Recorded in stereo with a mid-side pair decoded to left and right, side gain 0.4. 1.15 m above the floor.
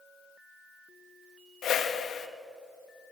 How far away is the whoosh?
About 2 m.